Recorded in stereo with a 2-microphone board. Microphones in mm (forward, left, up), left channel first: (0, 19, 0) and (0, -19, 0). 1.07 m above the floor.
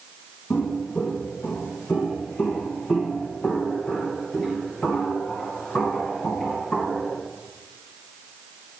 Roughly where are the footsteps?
Left.